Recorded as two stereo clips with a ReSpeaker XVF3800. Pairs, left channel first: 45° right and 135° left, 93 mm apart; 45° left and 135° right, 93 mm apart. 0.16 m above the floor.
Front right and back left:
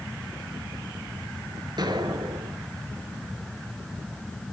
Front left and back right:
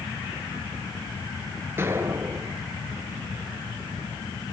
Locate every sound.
1.8 s an explosion: 165° left, 1.8 m